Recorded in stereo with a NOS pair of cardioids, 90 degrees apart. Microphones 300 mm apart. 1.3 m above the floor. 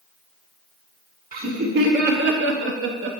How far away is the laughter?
About 1.4 m.